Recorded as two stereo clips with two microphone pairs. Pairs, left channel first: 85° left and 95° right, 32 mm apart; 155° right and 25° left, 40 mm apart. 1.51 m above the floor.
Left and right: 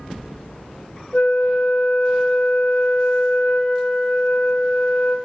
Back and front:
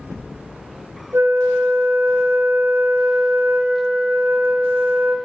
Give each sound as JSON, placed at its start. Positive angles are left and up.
{"t": 1.1, "sound": "a flute", "azimuth_deg": 35, "distance_m": 0.5}